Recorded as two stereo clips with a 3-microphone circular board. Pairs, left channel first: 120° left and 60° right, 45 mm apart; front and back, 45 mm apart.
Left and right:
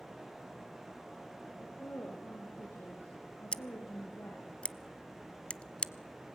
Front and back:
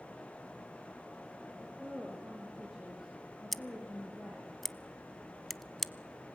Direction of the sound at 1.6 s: 90° left.